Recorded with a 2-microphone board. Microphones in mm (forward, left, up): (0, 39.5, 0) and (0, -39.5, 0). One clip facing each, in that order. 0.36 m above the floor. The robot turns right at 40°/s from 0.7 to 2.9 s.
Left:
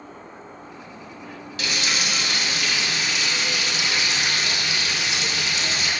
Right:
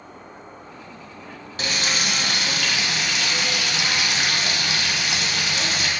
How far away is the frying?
About 1.2 m.